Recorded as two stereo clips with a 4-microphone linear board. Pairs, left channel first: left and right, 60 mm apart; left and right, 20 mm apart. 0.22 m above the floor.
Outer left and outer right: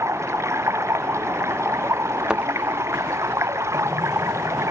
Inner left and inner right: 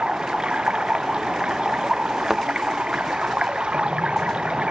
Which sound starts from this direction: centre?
A thud, at 2.3 s.